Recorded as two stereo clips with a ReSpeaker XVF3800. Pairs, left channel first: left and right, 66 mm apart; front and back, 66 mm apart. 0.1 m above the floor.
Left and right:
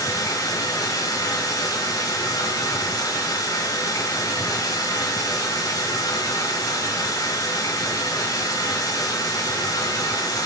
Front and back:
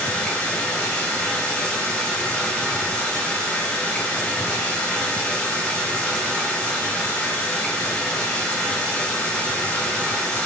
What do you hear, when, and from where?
0.0 s running water: 75° left, 5.5 m